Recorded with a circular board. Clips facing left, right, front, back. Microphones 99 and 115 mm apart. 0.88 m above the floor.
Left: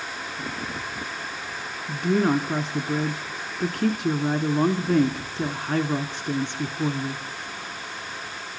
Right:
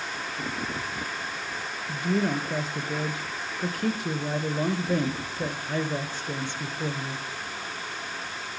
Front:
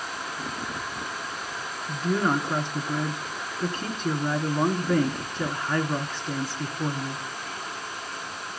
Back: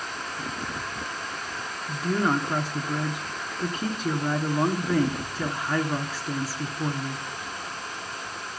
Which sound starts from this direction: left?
A woman speaking, at 1.9 s.